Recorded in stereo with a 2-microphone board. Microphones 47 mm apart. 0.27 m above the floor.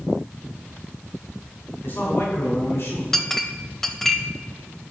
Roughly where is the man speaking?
Left.